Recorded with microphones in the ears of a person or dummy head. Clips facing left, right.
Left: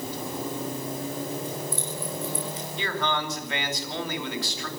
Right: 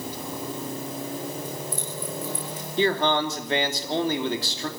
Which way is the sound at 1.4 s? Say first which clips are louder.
Left 1 dB; 30° left (ahead or behind).